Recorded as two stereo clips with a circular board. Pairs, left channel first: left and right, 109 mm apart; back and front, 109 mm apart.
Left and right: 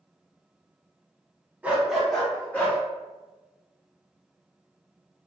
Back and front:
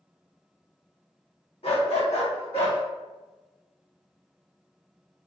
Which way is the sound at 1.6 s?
165° right.